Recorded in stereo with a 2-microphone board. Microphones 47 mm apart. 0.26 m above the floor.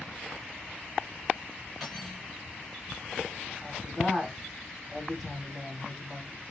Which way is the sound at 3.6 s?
Centre (ahead or behind).